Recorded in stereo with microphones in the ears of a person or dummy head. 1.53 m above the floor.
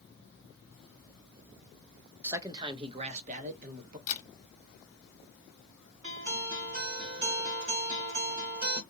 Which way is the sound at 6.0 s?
30° right (ahead or behind).